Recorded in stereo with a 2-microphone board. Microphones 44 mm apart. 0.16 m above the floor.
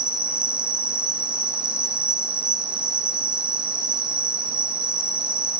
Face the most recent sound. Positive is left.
turn(degrees=-25)  # may be behind; listen again after turning